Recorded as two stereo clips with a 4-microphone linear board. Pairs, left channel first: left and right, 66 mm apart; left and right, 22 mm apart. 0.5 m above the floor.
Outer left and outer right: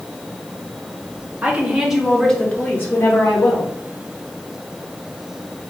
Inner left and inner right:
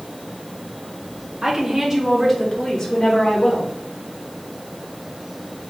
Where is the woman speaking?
20° right (ahead or behind), 1.2 m; by 3.7 s 55° left (ahead or behind), 1.2 m.